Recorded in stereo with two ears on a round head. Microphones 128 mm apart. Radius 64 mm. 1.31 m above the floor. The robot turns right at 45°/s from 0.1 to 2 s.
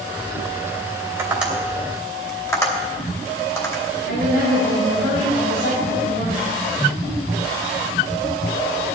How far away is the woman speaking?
About 5 m.